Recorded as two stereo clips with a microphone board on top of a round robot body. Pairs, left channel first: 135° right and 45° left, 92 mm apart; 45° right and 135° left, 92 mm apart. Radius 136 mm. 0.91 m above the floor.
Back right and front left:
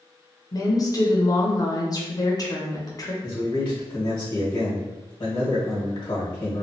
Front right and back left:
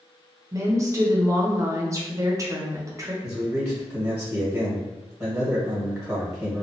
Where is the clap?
I don't hear a clap.